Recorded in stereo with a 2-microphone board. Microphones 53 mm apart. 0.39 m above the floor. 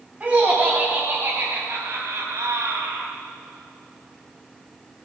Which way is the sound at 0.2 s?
20° right (ahead or behind).